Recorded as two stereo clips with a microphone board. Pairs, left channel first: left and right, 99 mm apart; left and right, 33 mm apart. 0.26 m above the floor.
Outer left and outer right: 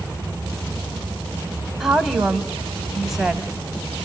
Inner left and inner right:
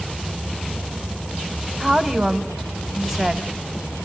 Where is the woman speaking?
Centre (ahead or behind), 1.2 m.